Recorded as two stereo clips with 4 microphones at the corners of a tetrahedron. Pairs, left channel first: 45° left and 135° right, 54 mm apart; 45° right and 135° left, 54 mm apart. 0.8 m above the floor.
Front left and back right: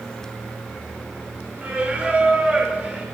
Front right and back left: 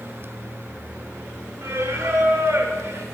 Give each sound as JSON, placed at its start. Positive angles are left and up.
{"t": 1.6, "sound": "singing", "azimuth_deg": 160, "distance_m": 0.7}